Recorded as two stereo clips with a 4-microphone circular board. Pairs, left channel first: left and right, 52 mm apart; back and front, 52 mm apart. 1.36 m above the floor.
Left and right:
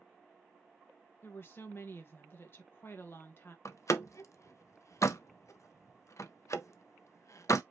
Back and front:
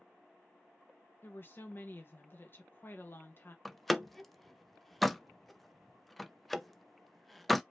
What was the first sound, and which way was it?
A woman speaking, 130° left.